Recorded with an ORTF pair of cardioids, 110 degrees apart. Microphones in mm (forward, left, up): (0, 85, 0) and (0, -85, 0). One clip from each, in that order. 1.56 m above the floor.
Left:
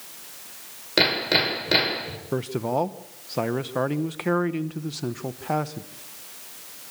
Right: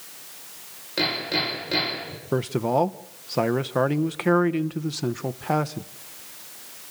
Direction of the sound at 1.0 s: 50° left.